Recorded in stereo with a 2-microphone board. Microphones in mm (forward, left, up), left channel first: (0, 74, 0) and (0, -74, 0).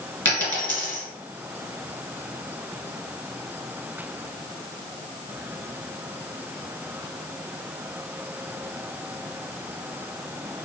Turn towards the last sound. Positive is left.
turn(degrees=15)  # may be behind; listen again after turning